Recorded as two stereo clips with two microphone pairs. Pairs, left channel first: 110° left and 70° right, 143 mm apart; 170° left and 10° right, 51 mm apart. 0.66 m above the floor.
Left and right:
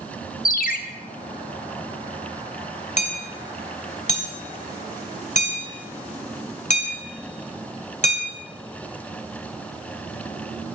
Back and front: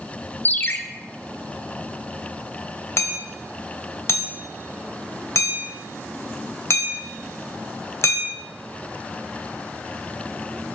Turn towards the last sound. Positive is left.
turn(degrees=140)